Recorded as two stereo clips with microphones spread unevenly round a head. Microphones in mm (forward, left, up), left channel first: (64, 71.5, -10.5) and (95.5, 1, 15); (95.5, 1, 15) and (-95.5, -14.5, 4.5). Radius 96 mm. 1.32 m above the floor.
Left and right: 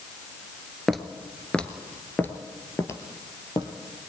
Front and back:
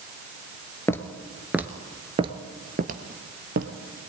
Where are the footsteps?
40° right, 1.3 m; by 3.7 s straight behind, 1.9 m.